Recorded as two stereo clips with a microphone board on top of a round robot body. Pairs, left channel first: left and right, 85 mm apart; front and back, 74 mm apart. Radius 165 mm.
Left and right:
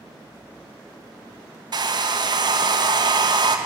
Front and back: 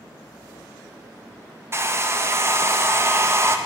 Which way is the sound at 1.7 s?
125° right.